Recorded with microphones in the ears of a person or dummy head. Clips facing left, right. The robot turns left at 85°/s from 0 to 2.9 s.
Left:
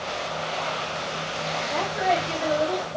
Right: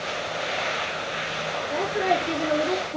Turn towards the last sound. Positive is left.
turn(degrees=-95)